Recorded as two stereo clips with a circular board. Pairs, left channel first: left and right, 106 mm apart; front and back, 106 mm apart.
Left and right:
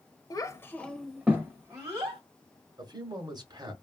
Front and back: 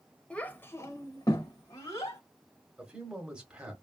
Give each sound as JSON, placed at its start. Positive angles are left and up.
{"t": 0.3, "sound": "a child speaking", "azimuth_deg": 75, "distance_m": 0.6}
{"t": 2.8, "sound": "a man speaking", "azimuth_deg": -105, "distance_m": 1.2}